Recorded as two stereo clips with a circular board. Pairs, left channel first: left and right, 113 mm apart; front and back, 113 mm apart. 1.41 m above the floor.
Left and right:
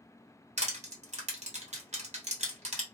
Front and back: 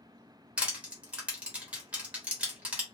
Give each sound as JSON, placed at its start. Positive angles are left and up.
{"t": 0.6, "sound": "crushing", "azimuth_deg": -100, "distance_m": 1.1}